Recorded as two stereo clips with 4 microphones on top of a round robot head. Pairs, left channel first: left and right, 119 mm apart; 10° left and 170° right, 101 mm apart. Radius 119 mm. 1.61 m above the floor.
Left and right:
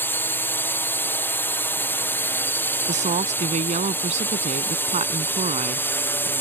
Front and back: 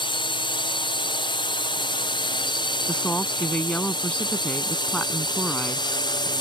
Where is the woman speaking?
70° right.